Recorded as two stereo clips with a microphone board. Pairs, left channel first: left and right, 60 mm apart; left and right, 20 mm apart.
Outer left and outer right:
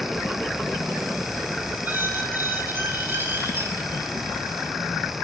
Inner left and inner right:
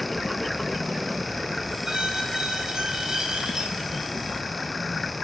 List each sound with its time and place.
1.8 s a squeak: 35° right (ahead or behind), 4.5 m